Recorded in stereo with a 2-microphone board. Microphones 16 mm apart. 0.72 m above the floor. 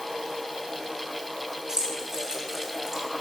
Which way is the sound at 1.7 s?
35° right (ahead or behind).